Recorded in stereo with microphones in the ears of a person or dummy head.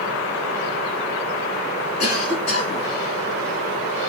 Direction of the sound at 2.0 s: 90° left.